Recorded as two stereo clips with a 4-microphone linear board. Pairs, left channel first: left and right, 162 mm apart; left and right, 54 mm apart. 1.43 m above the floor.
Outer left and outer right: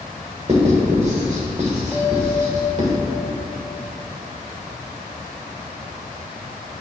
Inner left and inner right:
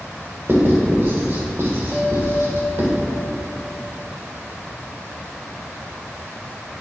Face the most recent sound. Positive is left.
turn(degrees=10)  # may be behind; listen again after turning